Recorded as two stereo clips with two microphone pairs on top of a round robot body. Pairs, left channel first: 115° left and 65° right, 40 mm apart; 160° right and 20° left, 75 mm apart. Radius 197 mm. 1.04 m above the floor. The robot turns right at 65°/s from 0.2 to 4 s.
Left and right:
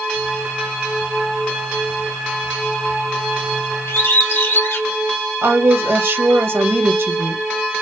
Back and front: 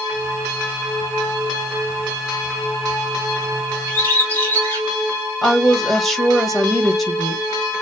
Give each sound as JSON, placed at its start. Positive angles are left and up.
{"t": 3.9, "sound": "a bird", "azimuth_deg": 125, "distance_m": 1.4}
{"t": 5.4, "sound": "a woman speaking", "azimuth_deg": -75, "distance_m": 1.7}